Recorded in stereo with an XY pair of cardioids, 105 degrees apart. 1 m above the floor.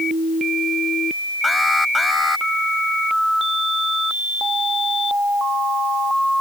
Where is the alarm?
20° left.